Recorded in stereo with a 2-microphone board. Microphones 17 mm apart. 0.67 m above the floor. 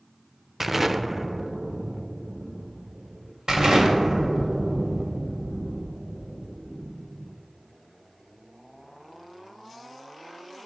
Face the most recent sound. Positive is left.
turn(degrees=-50)  # may be behind; listen again after turning